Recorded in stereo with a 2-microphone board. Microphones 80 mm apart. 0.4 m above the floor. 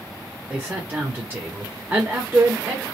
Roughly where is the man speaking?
Right.